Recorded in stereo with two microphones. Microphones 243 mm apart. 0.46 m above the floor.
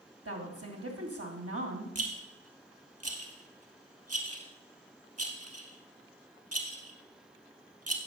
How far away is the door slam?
I don't hear a door slam.